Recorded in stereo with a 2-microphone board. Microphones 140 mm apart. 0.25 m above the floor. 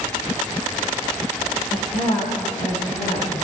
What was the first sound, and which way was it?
A woman speaking, 65° left (ahead or behind).